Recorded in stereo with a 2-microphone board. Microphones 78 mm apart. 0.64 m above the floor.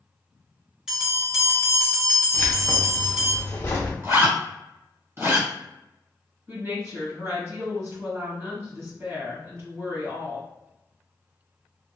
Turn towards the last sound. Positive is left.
turn(degrees=-35)  # may be behind; listen again after turning